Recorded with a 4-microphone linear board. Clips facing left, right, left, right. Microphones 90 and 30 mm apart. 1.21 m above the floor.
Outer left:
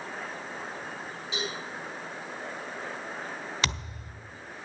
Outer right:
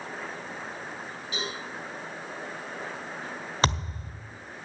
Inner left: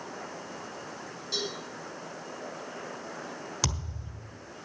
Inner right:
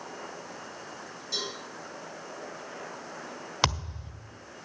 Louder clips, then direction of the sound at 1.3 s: Even, inner left 1 dB; 25° left (ahead or behind).